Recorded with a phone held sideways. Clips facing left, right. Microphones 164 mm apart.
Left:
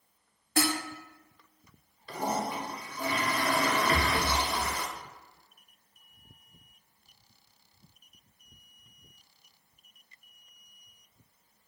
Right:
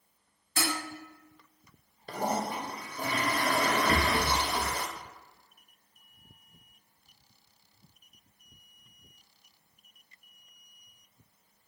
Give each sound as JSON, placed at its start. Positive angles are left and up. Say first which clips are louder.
{"t": 0.6, "sound": "dishes clattering", "louder": "left 5 dB", "side_deg": 55, "distance_m": 1.8}
{"t": 2.1, "sound": "a toilet flushing", "louder": "right 1 dB", "side_deg": -50, "distance_m": 1.0}
{"t": 3.9, "sound": "a rattle", "louder": "right 1 dB", "side_deg": -30, "distance_m": 0.8}